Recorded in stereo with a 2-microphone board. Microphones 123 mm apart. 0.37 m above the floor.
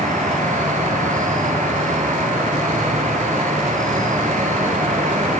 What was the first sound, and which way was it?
An insect, 80° right.